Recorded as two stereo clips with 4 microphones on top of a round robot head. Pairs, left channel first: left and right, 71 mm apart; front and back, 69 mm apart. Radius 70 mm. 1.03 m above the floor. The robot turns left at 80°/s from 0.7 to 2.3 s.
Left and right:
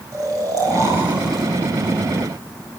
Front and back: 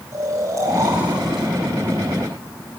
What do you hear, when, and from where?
0.1 s snoring: 125° right, 5 m; by 1.5 s 170° left, 5 m